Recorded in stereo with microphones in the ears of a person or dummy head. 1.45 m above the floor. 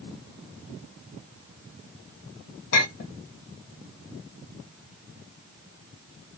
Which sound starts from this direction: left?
A clink, at 2.7 s.